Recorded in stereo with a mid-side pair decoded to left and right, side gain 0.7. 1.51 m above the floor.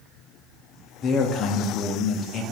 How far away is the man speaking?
About 0.5 m.